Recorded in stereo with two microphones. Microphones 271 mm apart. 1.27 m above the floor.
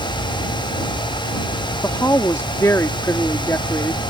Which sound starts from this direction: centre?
A woman speaking, at 1.8 s.